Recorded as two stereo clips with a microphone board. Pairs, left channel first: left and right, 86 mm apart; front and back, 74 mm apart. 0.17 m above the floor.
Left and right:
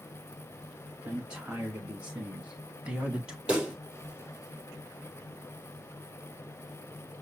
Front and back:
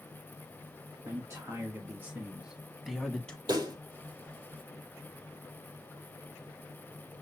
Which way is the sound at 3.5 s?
170° right.